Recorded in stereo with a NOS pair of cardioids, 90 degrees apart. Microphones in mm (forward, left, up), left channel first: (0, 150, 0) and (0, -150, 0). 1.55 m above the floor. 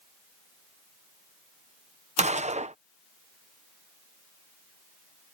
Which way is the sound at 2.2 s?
20° right.